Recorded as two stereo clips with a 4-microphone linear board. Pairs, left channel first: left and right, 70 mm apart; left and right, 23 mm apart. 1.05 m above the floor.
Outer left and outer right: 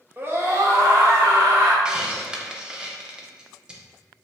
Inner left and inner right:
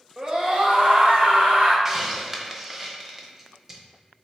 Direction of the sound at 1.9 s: 10° right (ahead or behind).